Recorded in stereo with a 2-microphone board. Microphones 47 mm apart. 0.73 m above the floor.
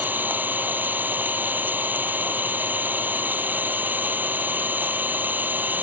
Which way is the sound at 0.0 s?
40° right (ahead or behind).